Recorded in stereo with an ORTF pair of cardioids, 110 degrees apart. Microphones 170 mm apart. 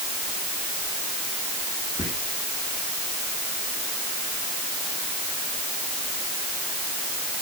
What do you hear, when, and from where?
2.0 s whispering: 20° left, 1.2 m